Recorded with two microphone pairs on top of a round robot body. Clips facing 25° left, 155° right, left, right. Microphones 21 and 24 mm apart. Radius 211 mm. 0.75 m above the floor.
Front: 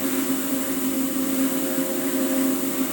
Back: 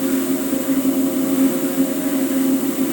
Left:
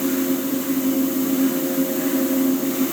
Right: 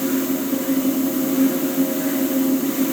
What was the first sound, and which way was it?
Only background noise.